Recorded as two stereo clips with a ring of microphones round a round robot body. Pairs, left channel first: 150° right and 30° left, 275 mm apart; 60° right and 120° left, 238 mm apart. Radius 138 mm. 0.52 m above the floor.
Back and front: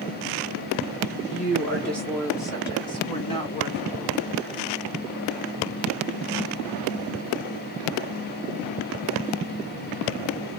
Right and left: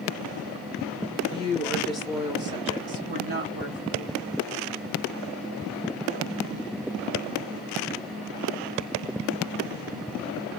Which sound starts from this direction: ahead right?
A woman speaking, at 1.3 s.